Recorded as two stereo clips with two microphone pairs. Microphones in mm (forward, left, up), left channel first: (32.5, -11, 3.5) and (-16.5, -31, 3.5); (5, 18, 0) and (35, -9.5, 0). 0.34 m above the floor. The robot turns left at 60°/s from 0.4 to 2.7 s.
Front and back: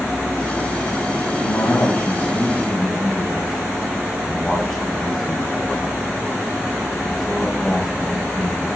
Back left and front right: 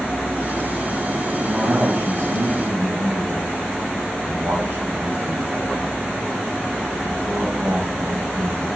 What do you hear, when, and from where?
1.4 s a man speaking: 15° left, 1.9 m; by 8.7 s 65° right, 1.9 m